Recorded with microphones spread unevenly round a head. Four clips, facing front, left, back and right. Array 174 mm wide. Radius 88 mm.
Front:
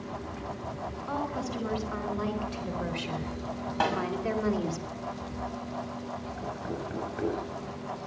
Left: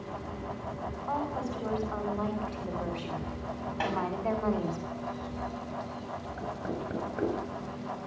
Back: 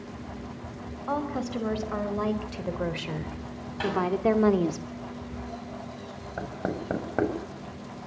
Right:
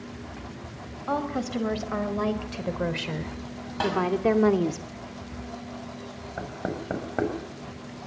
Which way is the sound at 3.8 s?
20° right.